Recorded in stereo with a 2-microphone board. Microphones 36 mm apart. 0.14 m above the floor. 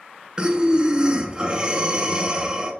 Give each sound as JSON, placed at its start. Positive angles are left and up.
{"t": 0.4, "sound": "breathing", "side_deg": -25, "distance_m": 0.6}